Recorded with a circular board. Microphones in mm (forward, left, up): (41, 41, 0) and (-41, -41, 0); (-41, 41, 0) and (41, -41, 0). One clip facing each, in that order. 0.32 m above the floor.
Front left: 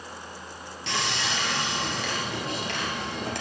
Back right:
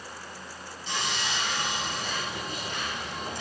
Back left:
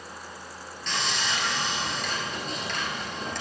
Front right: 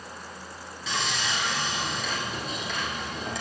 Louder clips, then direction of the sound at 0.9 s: Front left 3 dB, even; 40° left.